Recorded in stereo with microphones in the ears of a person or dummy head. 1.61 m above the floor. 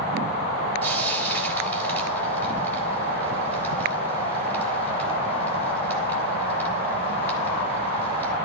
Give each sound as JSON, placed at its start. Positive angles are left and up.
{"t": 0.8, "sound": "frying", "side_deg": 20, "distance_m": 4.0}